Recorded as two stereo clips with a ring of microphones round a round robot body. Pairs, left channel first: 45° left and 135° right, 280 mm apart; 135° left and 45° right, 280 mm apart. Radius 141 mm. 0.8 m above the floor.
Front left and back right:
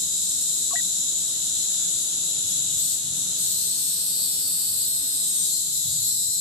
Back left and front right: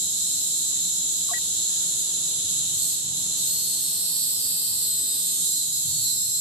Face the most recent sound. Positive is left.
turn(degrees=-20)